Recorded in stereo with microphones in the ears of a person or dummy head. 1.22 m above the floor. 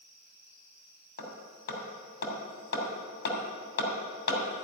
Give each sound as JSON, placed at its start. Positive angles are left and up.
{"t": 1.2, "sound": "hammering", "side_deg": 65, "distance_m": 2.5}